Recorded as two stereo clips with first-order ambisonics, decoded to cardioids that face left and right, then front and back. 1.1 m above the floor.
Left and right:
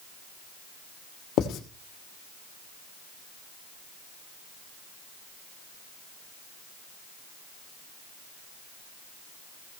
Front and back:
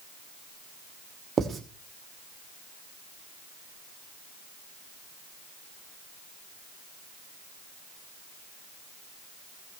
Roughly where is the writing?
Behind left.